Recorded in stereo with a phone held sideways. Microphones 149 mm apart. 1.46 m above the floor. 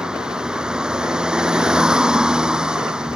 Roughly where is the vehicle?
Centre.